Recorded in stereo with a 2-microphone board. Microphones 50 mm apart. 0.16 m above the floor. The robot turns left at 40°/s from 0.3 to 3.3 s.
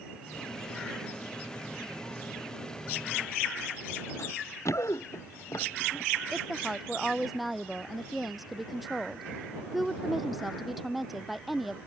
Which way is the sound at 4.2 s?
65° left (ahead or behind).